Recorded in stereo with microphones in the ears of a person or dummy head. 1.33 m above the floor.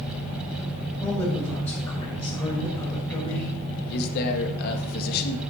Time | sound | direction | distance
1.0 | a man speaking | 15° left (ahead or behind) | 5 m
3.9 | a man speaking | 55° left (ahead or behind) | 1.6 m